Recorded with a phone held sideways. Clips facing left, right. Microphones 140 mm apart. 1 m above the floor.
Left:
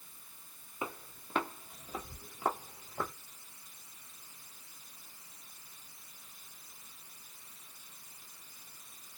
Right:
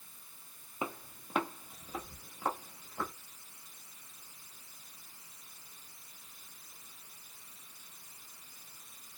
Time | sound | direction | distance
0.8 | footsteps | 20° right (ahead or behind) | 1.1 m